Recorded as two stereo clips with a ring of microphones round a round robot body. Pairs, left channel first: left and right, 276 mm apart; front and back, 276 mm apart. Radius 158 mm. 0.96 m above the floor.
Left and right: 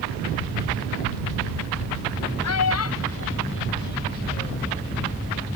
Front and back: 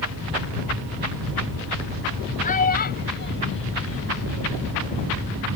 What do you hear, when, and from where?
2.4 s a child speaking: 60° left; by 4.7 s 25° left